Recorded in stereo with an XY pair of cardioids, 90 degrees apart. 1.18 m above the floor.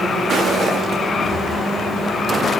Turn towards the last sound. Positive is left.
turn(degrees=-65)